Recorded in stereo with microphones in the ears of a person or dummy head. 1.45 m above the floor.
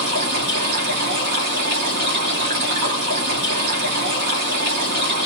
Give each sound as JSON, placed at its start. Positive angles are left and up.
{"t": 0.0, "sound": "running water", "side_deg": -50, "distance_m": 1.5}